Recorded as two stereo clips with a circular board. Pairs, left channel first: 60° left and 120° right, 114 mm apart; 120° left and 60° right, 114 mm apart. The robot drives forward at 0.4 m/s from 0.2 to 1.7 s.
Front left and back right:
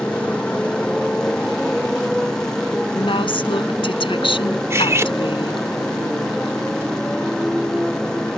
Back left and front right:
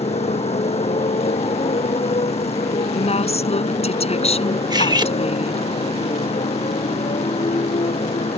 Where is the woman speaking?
100° left.